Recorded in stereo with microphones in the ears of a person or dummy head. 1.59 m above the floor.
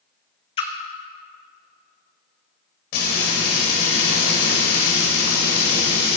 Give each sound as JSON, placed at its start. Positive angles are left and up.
{"t": 0.6, "sound": "a splash", "side_deg": 40, "distance_m": 1.2}
{"t": 2.9, "sound": "frying", "side_deg": 60, "distance_m": 4.0}